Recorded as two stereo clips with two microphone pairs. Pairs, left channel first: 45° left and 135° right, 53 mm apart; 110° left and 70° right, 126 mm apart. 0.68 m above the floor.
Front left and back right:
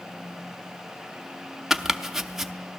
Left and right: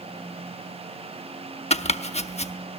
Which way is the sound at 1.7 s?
140° left.